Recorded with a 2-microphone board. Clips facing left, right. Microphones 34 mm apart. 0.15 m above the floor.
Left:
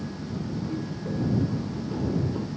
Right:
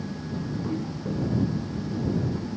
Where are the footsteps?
25° right (ahead or behind); by 2.5 s 30° left (ahead or behind).